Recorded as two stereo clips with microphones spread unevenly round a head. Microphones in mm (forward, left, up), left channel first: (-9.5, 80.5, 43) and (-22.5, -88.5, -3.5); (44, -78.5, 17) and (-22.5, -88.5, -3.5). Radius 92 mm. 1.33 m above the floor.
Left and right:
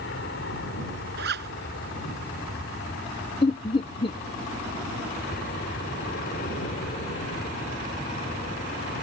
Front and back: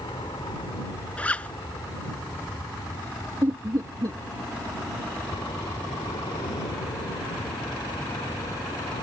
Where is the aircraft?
55° left; by 9.0 s 40° left.